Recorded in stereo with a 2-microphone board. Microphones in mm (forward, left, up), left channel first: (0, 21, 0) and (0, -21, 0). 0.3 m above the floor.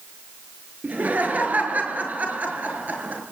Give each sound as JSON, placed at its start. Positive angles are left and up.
{"t": 0.8, "sound": "laughter", "side_deg": -45, "distance_m": 5.5}